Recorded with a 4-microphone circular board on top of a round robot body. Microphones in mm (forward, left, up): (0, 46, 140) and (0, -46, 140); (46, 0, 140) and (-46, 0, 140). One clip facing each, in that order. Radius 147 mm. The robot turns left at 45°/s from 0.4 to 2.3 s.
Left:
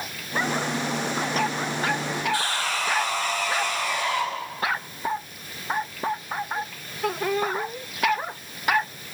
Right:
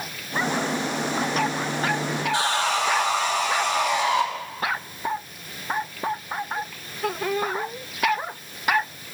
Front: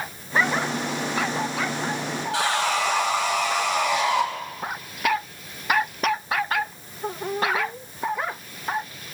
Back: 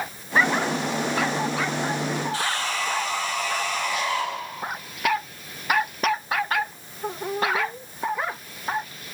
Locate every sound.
2.3 s sawing: 20° right, 5.5 m